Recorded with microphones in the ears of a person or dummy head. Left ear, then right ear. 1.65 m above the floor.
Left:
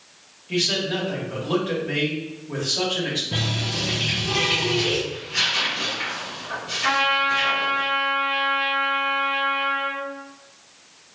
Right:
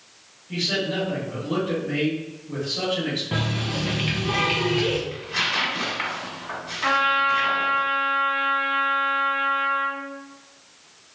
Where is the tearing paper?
65° right (ahead or behind), 1.5 m.